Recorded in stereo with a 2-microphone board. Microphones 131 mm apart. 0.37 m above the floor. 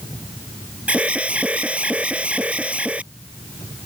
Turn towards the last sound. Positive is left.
turn(degrees=-10)  # may be behind; listen again after turning